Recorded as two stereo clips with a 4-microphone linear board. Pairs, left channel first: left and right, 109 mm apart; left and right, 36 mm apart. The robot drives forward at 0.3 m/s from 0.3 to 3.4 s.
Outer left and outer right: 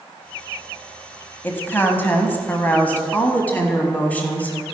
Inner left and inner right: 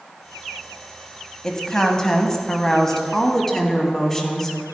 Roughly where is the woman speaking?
Left.